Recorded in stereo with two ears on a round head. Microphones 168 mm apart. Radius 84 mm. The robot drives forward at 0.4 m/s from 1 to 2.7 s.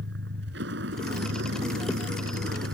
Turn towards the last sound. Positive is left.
turn(degrees=-65)  # may be behind; listen again after turning